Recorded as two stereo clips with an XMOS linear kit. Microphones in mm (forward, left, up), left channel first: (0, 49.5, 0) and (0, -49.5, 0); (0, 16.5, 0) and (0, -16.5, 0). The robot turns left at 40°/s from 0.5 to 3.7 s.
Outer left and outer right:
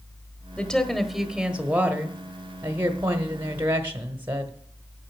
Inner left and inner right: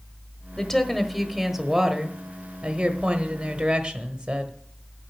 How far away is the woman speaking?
About 0.9 m.